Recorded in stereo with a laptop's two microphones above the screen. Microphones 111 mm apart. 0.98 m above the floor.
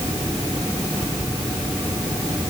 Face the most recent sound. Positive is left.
No sound to turn to.